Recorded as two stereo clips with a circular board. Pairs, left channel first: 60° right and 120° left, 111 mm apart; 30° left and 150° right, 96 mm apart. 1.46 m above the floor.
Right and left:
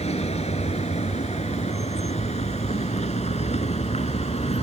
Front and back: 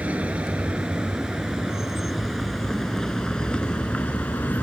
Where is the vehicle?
75° right; by 4.7 s 40° right.